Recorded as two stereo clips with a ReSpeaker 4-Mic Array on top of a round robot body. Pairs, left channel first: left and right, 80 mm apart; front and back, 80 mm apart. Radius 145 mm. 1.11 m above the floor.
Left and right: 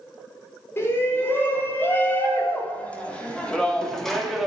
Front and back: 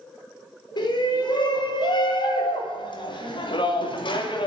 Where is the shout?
30° left, 4.5 m; by 4.5 s straight ahead, 3 m.